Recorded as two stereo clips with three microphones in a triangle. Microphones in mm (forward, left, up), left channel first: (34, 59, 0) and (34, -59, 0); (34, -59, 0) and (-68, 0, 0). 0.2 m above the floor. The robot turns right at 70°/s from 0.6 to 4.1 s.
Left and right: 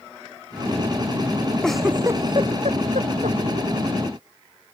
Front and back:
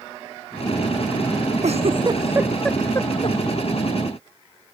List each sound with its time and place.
1.6 s a giggle: 170° left; by 3.4 s 65° right